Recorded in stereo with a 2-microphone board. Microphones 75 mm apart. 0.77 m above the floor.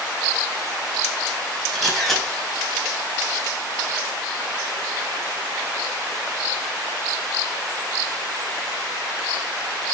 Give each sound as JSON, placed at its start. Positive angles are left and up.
{"t": 1.7, "sound": "a camera shutter", "side_deg": 0, "distance_m": 3.5}